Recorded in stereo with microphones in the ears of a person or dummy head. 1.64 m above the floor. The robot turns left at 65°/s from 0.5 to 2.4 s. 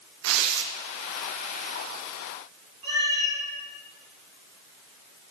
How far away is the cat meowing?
About 2 m.